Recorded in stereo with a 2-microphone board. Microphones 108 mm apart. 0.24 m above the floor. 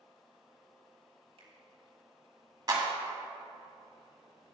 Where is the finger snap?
65° right (ahead or behind), 2 m.